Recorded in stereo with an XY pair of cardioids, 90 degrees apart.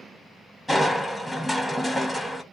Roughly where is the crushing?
Ahead.